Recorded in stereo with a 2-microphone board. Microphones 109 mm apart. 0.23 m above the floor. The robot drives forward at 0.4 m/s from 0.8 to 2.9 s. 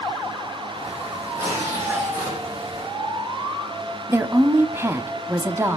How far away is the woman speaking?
About 1.0 m.